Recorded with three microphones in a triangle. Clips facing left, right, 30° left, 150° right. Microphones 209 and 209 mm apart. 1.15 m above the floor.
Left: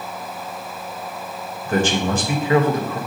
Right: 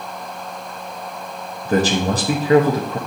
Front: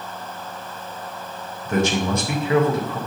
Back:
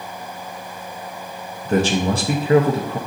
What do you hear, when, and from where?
1.6 s a man speaking: 115° right, 0.6 m